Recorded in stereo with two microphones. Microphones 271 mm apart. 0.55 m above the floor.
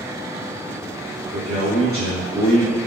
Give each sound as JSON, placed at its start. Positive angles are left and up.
{"t": 1.3, "sound": "a man speaking", "side_deg": -35, "distance_m": 1.8}